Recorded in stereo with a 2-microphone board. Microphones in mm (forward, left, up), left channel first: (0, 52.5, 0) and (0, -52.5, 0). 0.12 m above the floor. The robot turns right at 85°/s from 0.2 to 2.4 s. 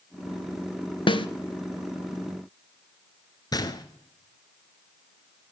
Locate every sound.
1.1 s a snare drum: 50° left (ahead or behind), 0.7 m; by 1.3 s 55° left (ahead or behind), 0.7 m
3.5 s a gunshot: 40° left (ahead or behind), 1.0 m